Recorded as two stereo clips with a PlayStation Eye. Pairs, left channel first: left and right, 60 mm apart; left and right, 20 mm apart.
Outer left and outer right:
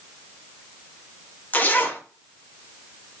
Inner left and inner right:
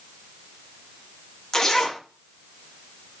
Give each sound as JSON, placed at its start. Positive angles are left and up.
{"t": 1.5, "sound": "a zipper", "side_deg": 25, "distance_m": 0.6}